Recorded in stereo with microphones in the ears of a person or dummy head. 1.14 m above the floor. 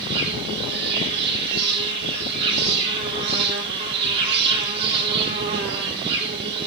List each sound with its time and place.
0.0 s an insect: 50° right (ahead or behind), 3.5 m